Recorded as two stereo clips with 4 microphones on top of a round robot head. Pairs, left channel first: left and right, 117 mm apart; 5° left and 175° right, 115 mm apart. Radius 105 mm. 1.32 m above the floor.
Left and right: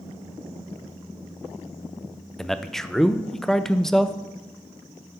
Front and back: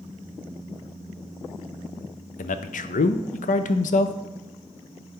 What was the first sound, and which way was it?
A man speaking, 5° left.